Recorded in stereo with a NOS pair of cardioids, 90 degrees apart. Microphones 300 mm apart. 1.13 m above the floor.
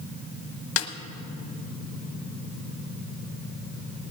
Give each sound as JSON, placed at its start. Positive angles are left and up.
{"t": 0.8, "sound": "a snare drum", "azimuth_deg": 45, "distance_m": 1.0}